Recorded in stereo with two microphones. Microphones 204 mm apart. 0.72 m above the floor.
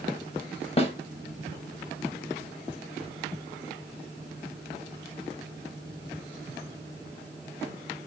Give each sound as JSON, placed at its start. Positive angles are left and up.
{"t": 0.8, "sound": "a snare drum", "side_deg": 30, "distance_m": 0.8}